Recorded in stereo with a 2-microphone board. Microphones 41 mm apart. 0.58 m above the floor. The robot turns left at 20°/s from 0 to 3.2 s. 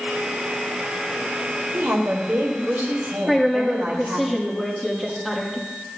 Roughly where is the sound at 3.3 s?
Centre.